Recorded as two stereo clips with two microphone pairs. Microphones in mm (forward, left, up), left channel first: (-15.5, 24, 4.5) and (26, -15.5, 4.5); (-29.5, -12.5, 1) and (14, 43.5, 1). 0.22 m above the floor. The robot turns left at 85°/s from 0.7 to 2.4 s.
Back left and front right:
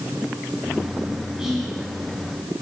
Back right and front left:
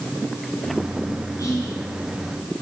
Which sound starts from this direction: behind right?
Whispering, at 1.4 s.